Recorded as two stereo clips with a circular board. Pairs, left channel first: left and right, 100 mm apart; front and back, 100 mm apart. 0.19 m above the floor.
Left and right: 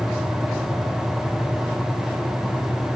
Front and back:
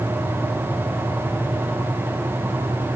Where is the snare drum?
No snare drum in this recording.